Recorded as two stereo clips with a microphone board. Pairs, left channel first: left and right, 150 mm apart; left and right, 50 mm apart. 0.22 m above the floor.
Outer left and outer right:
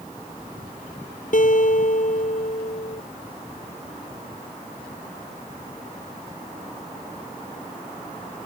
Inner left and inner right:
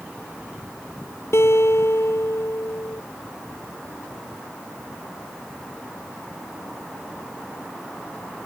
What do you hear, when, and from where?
1.3 s a guitar: 60° left (ahead or behind)